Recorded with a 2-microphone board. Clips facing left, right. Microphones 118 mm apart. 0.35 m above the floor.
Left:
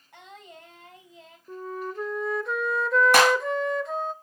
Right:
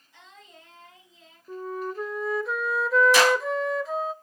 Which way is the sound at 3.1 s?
55° left (ahead or behind).